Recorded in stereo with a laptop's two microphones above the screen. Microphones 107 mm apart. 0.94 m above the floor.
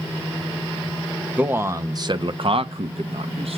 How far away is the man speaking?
About 0.8 m.